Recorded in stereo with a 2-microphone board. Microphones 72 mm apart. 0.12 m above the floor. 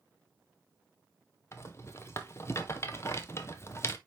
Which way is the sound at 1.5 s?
35° left (ahead or behind).